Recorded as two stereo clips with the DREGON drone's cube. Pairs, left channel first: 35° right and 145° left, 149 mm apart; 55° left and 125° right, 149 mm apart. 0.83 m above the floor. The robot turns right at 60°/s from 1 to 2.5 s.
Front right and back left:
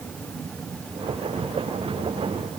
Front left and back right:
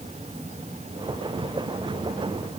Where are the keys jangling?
No keys jangling in this recording.